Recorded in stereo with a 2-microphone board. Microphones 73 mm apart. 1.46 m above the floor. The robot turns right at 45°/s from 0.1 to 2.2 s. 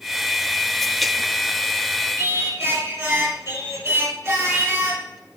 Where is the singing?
35° right (ahead or behind), 3.5 m.